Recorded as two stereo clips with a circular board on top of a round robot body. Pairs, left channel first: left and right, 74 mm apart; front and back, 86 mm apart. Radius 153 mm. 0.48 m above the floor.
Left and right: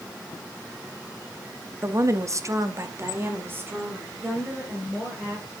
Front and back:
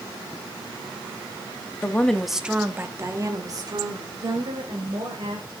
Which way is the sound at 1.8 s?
60° right.